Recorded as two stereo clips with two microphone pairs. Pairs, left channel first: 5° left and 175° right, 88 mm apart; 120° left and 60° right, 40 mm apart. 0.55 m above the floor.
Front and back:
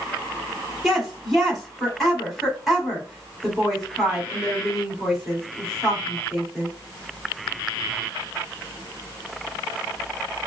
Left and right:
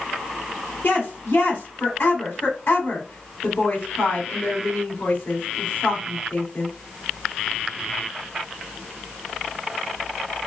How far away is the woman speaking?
About 2.5 m.